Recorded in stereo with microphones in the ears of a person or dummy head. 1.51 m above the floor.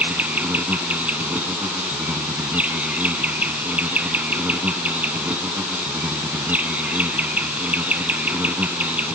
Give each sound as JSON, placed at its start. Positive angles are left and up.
{"t": 0.0, "sound": "an insect", "side_deg": -10}